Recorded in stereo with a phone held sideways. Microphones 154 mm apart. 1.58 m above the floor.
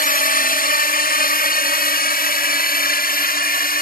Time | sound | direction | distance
0.0 | a drone | 70° left (ahead or behind) | ?